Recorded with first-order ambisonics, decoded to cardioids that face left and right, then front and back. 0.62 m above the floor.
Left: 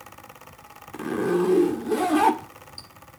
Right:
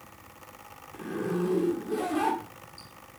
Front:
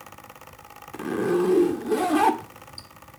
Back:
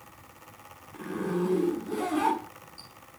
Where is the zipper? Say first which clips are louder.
Left 8 dB, front 8 dB; 40° left, 1.7 m.